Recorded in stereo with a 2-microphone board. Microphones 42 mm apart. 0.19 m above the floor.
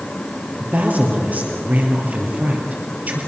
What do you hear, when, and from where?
0.6 s a woman speaking: 40° right (ahead or behind), 4 m